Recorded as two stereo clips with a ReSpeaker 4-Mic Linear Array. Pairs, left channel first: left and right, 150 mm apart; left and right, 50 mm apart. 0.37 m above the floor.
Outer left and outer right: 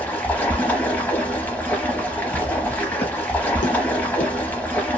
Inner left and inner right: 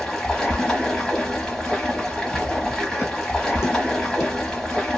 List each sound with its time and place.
0.0 s running water: 10° left (ahead or behind), 0.9 m
2.3 s footsteps: 15° left (ahead or behind), 0.6 m; by 4.3 s 75° left (ahead or behind), 1.2 m